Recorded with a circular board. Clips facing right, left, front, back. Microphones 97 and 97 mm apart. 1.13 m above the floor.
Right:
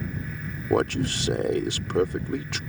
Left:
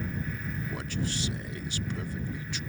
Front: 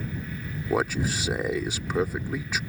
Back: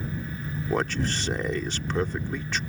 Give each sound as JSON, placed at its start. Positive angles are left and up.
{"t": 0.7, "sound": "a man speaking", "azimuth_deg": -80}